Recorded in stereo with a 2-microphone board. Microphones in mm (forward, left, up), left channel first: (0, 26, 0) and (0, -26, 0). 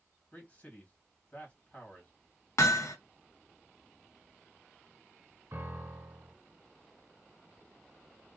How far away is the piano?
About 1.2 m.